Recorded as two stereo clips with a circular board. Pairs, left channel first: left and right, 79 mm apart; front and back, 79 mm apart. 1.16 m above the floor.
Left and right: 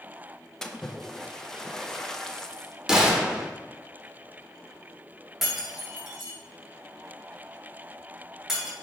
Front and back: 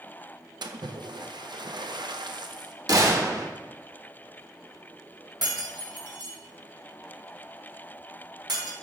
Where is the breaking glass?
175° right, 2.5 m.